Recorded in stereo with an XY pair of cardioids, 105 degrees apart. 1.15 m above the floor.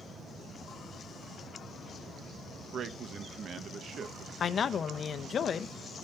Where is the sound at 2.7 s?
50° right, 0.8 m.